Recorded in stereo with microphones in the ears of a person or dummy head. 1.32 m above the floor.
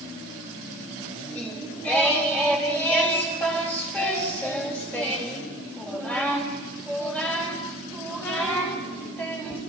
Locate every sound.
1.3 s singing: 10° left (ahead or behind), 4 m